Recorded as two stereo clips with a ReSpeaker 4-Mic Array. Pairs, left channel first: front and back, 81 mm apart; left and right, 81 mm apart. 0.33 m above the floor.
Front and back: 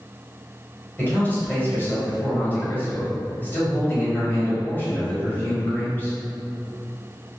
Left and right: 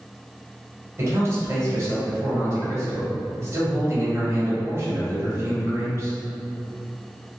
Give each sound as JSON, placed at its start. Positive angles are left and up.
{"t": 1.0, "sound": "a man speaking", "azimuth_deg": -55, "distance_m": 1.7}